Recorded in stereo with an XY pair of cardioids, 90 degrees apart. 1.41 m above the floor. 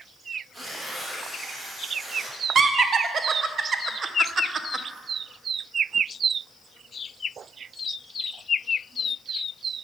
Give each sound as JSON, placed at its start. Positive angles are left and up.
{"t": 0.5, "sound": "tearing paper", "azimuth_deg": -15, "distance_m": 2.5}
{"t": 2.5, "sound": "laughter", "azimuth_deg": -50, "distance_m": 0.6}